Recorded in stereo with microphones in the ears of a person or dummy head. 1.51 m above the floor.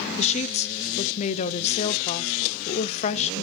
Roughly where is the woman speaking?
Left.